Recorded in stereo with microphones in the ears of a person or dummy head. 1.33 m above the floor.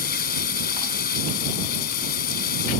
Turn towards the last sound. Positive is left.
turn(degrees=50)  # may be behind; listen again after turning